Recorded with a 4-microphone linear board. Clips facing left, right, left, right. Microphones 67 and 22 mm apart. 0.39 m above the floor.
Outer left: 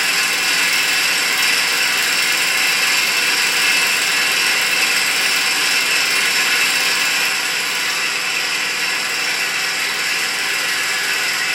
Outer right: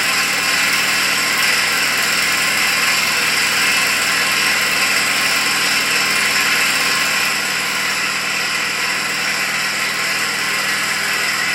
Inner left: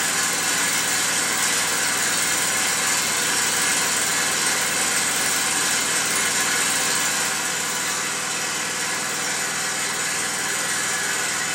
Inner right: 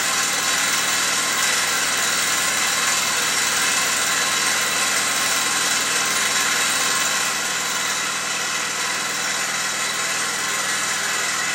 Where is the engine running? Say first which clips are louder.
Outer right 1 dB, inner right 2 dB; 35° right (ahead or behind), 0.8 m.